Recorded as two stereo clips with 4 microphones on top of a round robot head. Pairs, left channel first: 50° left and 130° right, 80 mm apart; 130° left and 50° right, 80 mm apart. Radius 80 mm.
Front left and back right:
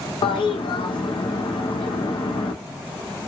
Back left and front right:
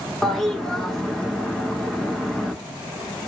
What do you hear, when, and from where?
0.2 s a toilet flushing: 45° left, 0.7 m